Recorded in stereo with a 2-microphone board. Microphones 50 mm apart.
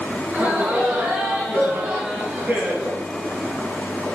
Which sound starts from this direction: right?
Laughter, at 0.3 s.